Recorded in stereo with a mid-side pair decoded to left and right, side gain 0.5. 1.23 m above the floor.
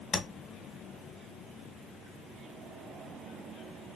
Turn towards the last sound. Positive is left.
turn(degrees=35)